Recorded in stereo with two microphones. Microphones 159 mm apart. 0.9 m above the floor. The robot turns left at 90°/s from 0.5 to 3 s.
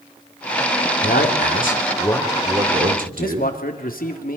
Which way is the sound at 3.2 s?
60° left (ahead or behind).